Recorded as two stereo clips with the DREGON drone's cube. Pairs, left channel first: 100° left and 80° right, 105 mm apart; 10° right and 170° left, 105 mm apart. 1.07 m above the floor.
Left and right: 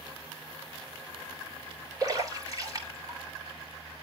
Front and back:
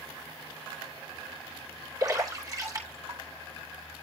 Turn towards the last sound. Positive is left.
turn(degrees=-135)